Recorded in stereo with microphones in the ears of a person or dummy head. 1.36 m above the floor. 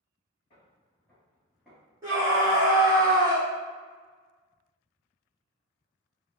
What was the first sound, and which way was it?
Footsteps, 15° left (ahead or behind).